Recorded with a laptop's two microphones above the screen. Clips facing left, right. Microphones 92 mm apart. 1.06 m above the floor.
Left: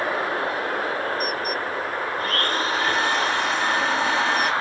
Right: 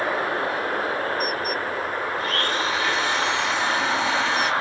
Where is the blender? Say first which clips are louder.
Left 2 dB; 40° left (ahead or behind), 1.1 m.